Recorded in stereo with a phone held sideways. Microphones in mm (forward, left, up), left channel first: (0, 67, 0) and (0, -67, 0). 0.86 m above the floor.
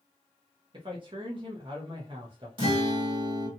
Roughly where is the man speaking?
Right.